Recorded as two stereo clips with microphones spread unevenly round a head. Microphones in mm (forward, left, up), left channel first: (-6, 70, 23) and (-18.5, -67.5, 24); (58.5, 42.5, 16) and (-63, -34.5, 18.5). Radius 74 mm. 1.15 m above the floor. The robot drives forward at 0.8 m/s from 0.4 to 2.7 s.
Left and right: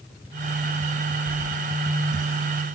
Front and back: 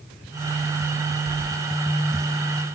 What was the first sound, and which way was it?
Keys jangling, 120° left.